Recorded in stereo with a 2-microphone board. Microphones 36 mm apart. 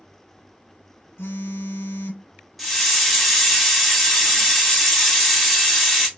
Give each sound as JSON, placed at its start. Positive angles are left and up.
{"t": 1.2, "sound": "a phone buzzing", "side_deg": 80, "distance_m": 0.7}
{"t": 2.6, "sound": "a hiss", "side_deg": 5, "distance_m": 0.9}